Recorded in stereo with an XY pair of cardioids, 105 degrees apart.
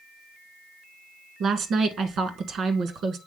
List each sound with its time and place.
1.4 s a woman speaking: 65° right, 1.3 m